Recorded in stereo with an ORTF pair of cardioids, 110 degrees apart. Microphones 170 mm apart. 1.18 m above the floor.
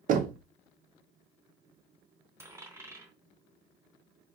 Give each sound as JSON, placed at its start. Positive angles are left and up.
{"t": 0.1, "sound": "knocking", "azimuth_deg": -55, "distance_m": 0.7}
{"t": 2.4, "sound": "a dropped coin", "azimuth_deg": -15, "distance_m": 3.0}